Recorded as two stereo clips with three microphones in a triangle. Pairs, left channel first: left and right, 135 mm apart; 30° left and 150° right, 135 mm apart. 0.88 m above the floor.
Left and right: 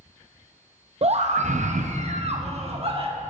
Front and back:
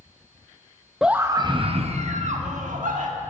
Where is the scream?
65° right, 0.6 m; by 3.1 s 135° right, 1.5 m.